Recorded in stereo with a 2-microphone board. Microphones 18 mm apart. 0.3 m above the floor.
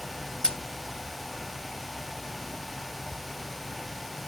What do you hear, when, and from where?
0.4 s scissors: 40° left (ahead or behind), 1.7 m